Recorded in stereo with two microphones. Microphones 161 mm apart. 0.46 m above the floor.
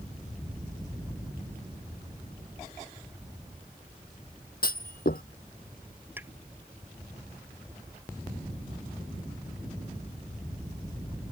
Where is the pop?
10° right (ahead or behind).